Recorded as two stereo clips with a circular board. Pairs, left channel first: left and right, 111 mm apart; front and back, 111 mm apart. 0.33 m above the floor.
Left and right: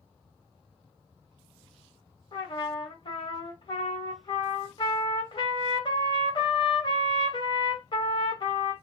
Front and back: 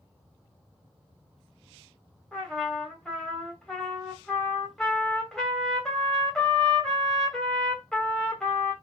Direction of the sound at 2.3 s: 85° left.